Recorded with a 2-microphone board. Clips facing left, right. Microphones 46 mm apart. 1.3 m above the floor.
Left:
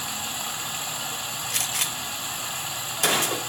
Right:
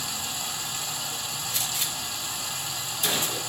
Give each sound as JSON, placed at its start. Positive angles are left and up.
{"t": 0.0, "sound": "running water", "side_deg": 35, "distance_m": 0.9}
{"t": 1.5, "sound": "a gunshot", "side_deg": 65, "distance_m": 0.6}